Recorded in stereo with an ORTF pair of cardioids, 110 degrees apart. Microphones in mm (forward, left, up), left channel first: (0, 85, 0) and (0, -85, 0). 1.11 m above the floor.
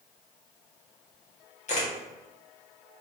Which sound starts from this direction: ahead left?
A camera shutter, at 1.7 s.